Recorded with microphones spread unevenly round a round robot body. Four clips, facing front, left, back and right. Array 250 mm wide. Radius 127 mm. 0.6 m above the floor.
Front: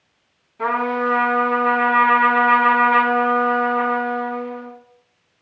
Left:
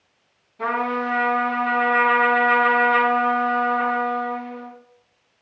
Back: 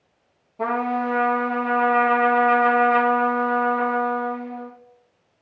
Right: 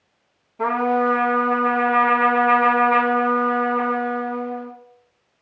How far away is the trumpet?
About 4 m.